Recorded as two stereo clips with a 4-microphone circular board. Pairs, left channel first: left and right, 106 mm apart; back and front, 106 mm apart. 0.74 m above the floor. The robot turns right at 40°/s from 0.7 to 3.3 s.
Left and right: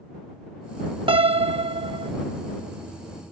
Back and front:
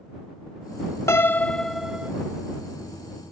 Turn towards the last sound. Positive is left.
turn(degrees=-30)